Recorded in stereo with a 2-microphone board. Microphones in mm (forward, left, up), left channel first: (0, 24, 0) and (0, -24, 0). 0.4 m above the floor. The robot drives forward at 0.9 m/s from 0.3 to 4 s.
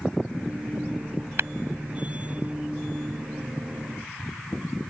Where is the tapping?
60° right (ahead or behind); by 1.5 s 55° right (ahead or behind).